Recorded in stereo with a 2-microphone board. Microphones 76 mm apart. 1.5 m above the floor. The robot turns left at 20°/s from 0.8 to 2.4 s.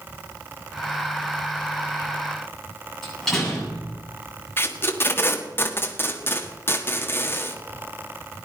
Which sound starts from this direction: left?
Tape being pulled, at 4.6 s.